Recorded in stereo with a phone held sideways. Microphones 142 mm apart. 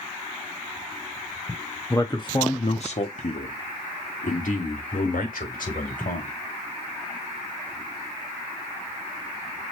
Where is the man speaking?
20° left (ahead or behind), 1.5 m; by 6.3 s 75° left (ahead or behind), 5 m.